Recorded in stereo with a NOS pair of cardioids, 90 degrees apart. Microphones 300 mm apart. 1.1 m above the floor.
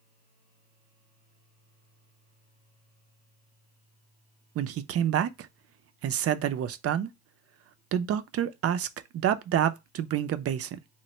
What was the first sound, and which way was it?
A man speaking, 50° right.